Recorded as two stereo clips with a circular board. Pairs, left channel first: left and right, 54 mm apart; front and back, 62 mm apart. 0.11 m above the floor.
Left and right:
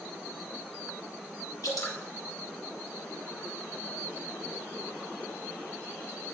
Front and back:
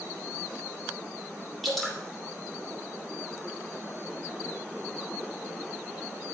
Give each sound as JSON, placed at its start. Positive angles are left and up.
{"t": 1.6, "sound": "dripping", "azimuth_deg": 90, "distance_m": 3.0}